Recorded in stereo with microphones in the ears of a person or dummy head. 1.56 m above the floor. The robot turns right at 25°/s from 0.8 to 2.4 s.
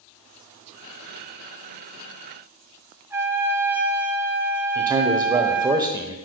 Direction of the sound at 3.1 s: 15° right (ahead or behind).